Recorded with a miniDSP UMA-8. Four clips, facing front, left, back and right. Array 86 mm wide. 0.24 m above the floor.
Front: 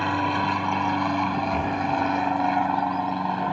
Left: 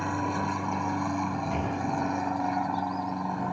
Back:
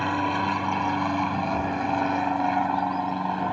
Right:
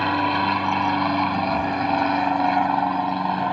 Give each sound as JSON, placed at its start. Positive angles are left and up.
{"t": 0.0, "sound": "an aircraft", "azimuth_deg": -80}
{"t": 1.5, "sound": "breathing", "azimuth_deg": 20}